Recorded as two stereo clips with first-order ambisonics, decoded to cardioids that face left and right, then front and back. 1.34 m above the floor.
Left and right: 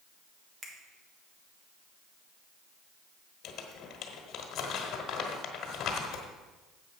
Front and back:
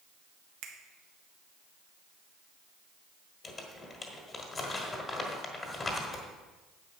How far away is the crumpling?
About 1.4 m.